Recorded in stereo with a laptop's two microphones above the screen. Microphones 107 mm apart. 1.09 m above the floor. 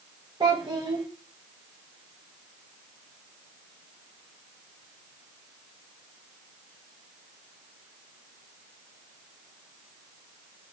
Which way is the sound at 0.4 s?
45° right (ahead or behind).